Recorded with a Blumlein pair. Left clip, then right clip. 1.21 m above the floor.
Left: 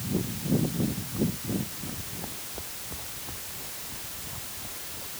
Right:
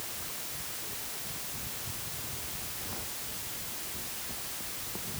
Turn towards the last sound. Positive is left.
No sound to turn to.